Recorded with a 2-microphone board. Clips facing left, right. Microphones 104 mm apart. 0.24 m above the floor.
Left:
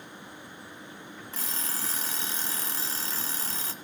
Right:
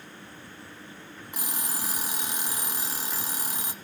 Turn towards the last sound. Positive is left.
turn(degrees=-15)  # may be behind; listen again after turning